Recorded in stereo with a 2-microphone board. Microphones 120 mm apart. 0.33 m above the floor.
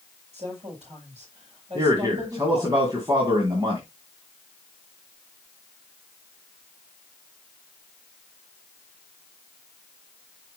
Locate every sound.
0.3 s a woman speaking: 65° right (ahead or behind), 7 m
1.8 s a man speaking: 35° right (ahead or behind), 2.5 m